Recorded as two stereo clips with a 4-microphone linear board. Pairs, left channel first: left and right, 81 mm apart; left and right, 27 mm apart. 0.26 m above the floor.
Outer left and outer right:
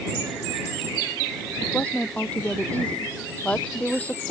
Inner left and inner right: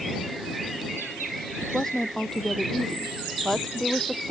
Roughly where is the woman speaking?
Centre.